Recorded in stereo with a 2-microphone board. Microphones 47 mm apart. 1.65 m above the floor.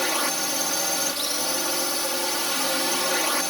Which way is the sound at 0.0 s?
5° left (ahead or behind).